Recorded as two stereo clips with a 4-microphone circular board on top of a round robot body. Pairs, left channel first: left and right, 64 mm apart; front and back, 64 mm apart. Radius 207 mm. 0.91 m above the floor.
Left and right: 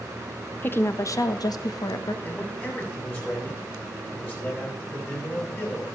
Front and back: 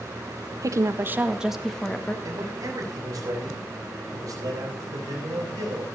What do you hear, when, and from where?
0.6 s a woman speaking: 150° left, 1.4 m; by 2.1 s 70° left, 2.0 m
2.2 s a man speaking: 145° left, 7 m